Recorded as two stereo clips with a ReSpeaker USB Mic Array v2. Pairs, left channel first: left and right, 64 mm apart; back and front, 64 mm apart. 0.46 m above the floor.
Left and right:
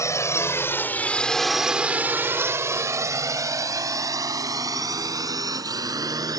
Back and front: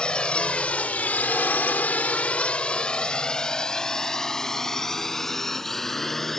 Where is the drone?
105° left; by 6.4 s 95° right.